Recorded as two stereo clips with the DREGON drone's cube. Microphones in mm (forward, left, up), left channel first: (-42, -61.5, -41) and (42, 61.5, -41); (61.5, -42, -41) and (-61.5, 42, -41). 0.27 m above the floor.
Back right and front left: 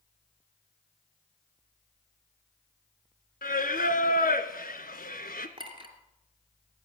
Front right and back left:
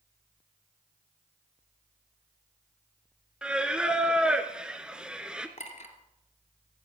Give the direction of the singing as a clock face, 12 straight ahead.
4 o'clock.